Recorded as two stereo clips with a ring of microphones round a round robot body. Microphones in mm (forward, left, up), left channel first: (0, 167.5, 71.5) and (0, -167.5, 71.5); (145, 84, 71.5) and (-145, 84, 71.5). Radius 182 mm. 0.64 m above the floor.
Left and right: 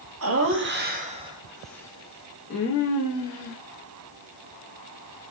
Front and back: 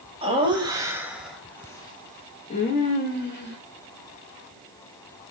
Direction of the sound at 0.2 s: 115° right.